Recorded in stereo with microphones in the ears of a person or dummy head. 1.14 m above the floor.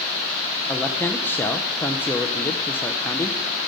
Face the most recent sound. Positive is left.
turn(degrees=10)  # may be behind; listen again after turning